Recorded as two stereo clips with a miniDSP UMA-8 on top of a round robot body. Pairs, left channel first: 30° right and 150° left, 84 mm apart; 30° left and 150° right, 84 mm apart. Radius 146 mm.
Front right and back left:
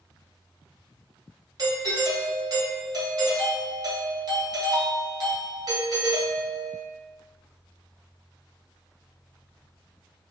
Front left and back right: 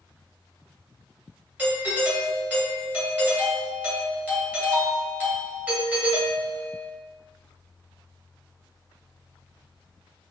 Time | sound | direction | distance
1.6 | a doorbell | 145° left | 1.9 m